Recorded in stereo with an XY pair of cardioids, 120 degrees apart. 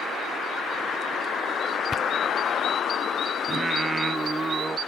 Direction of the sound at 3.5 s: 20° right.